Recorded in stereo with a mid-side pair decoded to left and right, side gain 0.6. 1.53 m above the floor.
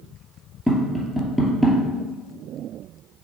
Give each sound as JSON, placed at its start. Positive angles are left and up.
{"t": 0.7, "sound": "tapping", "azimuth_deg": 0, "distance_m": 2.5}